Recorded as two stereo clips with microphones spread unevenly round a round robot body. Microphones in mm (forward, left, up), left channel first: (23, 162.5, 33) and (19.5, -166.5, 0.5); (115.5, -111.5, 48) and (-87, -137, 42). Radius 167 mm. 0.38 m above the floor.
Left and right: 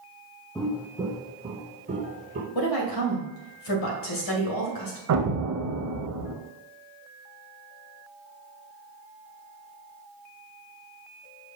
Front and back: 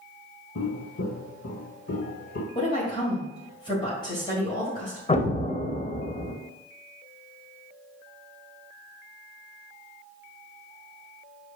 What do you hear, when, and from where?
0.6 s footsteps: 5° left, 0.9 m; by 2.5 s 25° right, 1.9 m
2.5 s a woman speaking: 75° left, 2 m
5.1 s an explosion: 50° right, 1.0 m